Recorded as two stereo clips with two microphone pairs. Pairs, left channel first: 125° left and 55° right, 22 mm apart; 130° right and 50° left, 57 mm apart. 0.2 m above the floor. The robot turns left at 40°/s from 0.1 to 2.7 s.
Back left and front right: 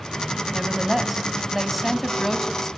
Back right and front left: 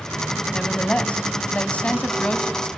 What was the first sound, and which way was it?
A woman speaking, 85° right.